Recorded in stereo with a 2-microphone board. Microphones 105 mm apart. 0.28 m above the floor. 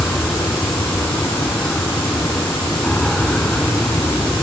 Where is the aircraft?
10° left (ahead or behind).